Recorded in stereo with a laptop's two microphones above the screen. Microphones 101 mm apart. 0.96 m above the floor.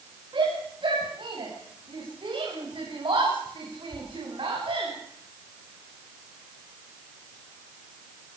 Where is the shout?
50° right (ahead or behind), 7.5 m; by 4.9 s 55° right (ahead or behind), 5 m.